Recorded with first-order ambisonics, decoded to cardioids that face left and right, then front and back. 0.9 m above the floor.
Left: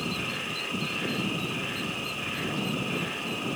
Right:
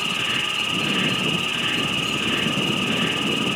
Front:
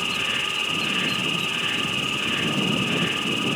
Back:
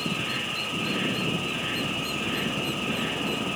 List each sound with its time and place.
0.0 s an insect: 70° right, 3.5 m